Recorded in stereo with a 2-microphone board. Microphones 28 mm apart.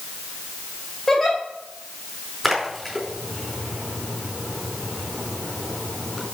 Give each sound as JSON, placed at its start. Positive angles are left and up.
{"t": 1.1, "sound": "a giggle", "side_deg": 10, "distance_m": 3.5}
{"t": 2.4, "sound": "a splash", "side_deg": 0, "distance_m": 4.5}